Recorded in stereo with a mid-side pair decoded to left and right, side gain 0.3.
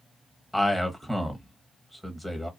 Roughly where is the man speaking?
Ahead.